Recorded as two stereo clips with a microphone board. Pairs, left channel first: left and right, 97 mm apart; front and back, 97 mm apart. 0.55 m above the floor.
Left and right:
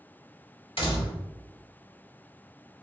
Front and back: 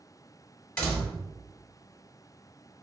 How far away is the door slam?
About 1.2 m.